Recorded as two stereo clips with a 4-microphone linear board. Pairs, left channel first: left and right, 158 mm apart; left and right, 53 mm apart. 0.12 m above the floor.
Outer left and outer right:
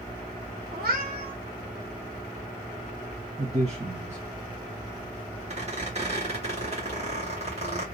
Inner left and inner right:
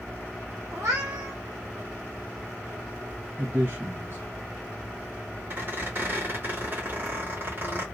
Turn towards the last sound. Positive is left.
turn(degrees=-40)  # may be behind; listen again after turning